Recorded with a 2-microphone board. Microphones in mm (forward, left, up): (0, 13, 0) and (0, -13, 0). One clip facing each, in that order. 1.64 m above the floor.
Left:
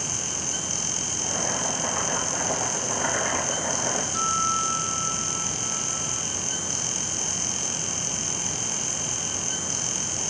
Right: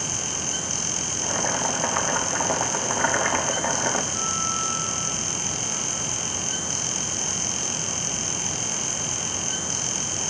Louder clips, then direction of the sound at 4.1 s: Left 3 dB; 30° left (ahead or behind).